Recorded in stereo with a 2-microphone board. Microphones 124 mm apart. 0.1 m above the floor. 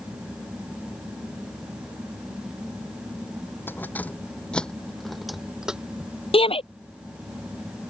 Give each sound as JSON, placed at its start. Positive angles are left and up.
{"t": 3.7, "sound": "keys jangling", "side_deg": 15}
{"t": 6.3, "sound": "a shout", "side_deg": 50}